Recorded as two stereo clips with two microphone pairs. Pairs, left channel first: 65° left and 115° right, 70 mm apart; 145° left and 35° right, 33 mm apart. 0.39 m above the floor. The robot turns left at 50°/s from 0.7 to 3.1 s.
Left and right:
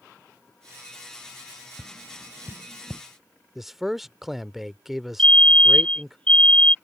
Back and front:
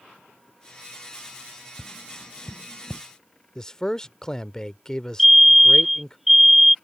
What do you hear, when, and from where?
1.8 s tapping: 80° right; by 3.0 s 145° right
3.5 s a man speaking: 170° left
5.2 s a fire alarm: 40° left